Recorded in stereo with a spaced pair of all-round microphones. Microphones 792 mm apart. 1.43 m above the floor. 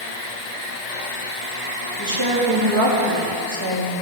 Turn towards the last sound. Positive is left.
turn(degrees=-35)  # may be behind; listen again after turning